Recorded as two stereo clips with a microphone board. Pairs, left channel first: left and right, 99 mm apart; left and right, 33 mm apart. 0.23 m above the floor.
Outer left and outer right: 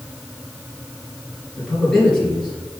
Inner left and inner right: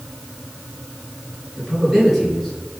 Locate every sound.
1.6 s a man speaking: 5° left (ahead or behind), 4 m; by 2.8 s 10° left (ahead or behind), 5 m